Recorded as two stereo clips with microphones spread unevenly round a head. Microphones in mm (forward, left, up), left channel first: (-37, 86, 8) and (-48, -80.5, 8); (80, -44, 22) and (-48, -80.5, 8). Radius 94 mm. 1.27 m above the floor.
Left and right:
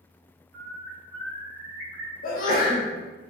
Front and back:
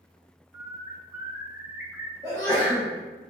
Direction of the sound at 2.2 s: 120° left.